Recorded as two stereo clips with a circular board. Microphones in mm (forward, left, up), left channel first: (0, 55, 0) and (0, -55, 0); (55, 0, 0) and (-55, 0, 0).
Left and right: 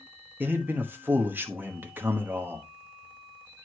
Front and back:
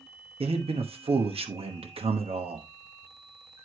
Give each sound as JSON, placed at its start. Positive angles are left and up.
{"t": 0.4, "sound": "a man speaking", "azimuth_deg": -160, "distance_m": 1.1}